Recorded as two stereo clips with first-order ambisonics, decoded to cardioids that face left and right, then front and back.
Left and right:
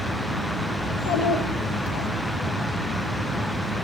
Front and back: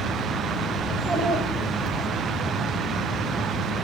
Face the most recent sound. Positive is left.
turn(degrees=110)